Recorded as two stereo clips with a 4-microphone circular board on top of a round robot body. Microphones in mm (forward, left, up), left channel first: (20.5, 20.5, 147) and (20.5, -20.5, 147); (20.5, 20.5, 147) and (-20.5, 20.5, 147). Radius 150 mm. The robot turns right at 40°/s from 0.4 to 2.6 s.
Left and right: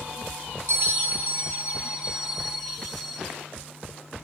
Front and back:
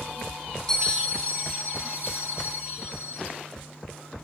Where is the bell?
75° right, 3.5 m; by 3.2 s straight ahead, 3.5 m.